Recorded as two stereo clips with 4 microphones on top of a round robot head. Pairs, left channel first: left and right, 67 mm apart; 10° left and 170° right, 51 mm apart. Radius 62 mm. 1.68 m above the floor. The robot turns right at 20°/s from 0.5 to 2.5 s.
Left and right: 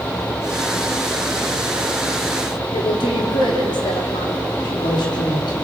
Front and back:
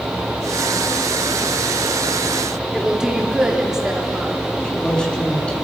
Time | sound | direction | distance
2.7 | a woman speaking | 110° left | 3.5 m
4.6 | a man speaking | 80° left | 5.5 m